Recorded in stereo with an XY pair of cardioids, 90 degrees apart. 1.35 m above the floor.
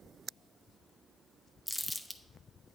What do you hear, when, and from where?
1.7 s crumpling: 5° left, 0.8 m